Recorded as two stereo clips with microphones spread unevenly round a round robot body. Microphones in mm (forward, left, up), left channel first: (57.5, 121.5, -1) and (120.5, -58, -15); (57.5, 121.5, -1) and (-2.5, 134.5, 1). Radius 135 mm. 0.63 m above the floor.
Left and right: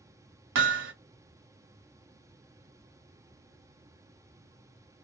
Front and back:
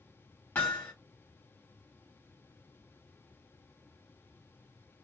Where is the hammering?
80° right, 0.5 m.